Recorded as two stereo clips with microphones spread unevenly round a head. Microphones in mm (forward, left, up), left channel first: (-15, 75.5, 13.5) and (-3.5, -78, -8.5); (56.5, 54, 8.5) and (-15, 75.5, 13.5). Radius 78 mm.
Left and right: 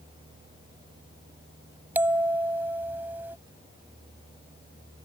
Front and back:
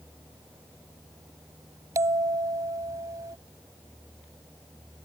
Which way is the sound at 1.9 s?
170° right.